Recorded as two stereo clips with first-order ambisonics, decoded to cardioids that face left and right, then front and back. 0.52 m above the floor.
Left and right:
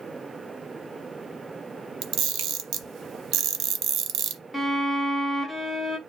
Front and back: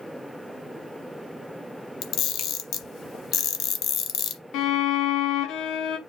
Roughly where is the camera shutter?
Ahead right.